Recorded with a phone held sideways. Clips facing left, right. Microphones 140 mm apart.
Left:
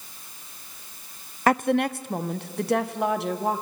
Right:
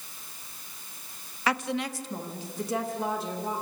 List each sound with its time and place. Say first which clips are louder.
1.5 s a woman speaking: left 8 dB; 45° left (ahead or behind), 0.6 m; by 3.6 s 60° left (ahead or behind), 1.7 m